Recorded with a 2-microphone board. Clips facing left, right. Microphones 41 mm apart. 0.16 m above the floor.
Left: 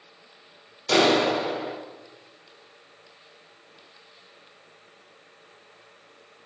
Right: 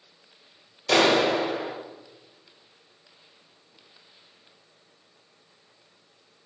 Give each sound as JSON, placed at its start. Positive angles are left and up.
{"t": 0.9, "sound": "a clap", "side_deg": -5, "distance_m": 1.4}